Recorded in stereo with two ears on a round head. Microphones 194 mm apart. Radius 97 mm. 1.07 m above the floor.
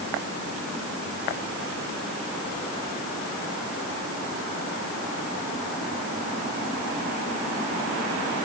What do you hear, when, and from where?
Only background noise.